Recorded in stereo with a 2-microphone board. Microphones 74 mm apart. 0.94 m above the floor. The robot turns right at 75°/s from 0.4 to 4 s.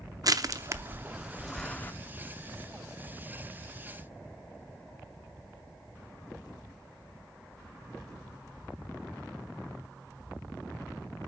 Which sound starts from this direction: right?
Crushing, at 0.2 s.